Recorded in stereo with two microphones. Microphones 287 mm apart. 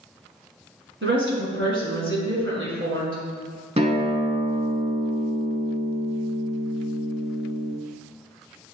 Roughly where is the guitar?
Right.